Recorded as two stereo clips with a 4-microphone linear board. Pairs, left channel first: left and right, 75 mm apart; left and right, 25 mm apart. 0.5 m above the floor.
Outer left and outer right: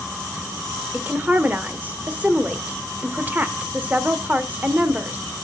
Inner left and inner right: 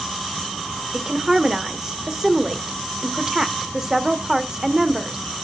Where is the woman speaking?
20° right (ahead or behind), 1.2 m.